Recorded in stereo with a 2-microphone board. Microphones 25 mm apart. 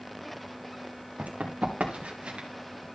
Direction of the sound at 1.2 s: 75° right (ahead or behind).